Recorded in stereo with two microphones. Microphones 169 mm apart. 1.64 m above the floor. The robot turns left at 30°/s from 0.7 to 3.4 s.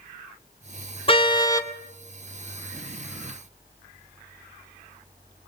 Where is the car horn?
35° left (ahead or behind), 2 m; by 1.7 s 15° left (ahead or behind), 2 m.